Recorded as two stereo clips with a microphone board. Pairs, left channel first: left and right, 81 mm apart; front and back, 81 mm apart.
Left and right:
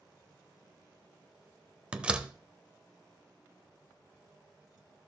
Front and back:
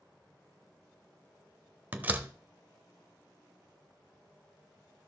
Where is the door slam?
145° right, 0.7 m.